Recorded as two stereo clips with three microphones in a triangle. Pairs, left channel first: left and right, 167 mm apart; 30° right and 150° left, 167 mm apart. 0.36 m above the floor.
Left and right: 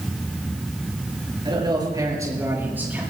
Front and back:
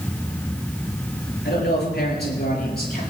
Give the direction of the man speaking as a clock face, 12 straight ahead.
1 o'clock.